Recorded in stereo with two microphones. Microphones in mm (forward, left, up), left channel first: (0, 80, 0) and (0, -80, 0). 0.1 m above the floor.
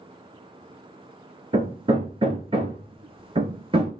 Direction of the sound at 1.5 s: 35° right (ahead or behind).